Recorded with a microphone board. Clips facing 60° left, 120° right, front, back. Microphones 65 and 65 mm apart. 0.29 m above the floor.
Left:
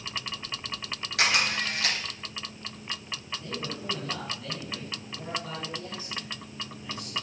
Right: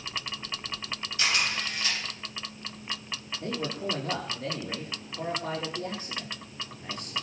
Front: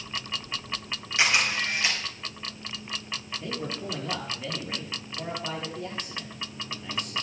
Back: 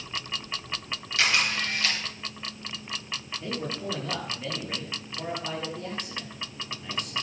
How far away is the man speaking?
About 6 m.